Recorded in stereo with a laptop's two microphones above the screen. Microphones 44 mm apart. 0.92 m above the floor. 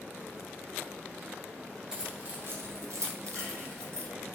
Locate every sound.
1.9 s keys jangling: 15° right (ahead or behind), 0.7 m; by 4.1 s 60° right (ahead or behind), 1.1 m